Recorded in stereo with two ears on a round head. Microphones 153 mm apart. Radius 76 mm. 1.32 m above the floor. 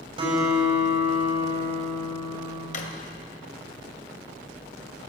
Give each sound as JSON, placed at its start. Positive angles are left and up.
{"t": 0.2, "sound": "a guitar", "side_deg": -30, "distance_m": 6.5}
{"t": 2.7, "sound": "a drawer", "side_deg": 50, "distance_m": 1.8}